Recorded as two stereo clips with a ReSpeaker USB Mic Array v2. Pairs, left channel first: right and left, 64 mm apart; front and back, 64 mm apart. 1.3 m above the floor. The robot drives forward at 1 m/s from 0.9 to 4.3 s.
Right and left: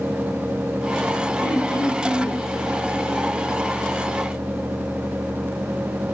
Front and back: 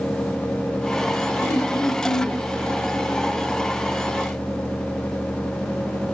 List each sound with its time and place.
1.4 s throat clearing: 35° right, 7 m; by 2.4 s 40° right, 6.5 m